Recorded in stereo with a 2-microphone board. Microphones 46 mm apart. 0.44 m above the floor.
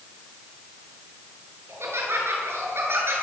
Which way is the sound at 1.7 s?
65° right (ahead or behind).